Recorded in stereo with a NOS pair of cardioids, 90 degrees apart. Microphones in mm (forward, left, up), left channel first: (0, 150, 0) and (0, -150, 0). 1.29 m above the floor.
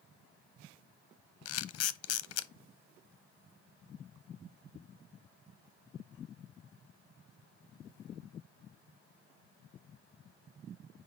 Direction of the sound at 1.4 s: 55° left.